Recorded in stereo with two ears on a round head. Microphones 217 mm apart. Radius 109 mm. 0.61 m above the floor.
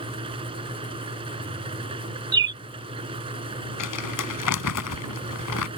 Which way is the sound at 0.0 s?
25° right (ahead or behind).